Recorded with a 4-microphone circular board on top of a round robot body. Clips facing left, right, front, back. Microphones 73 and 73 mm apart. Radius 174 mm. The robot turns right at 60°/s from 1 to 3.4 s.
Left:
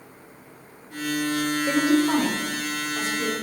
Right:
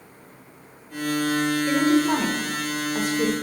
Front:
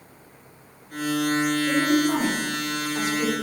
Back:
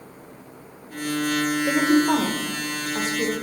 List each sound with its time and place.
1.7 s a woman speaking: 150° left, 2.5 m; by 3.3 s 110° right, 2.5 m